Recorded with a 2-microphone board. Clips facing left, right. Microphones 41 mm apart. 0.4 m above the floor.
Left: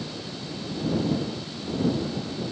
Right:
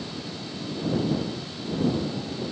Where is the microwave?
No microwave in this recording.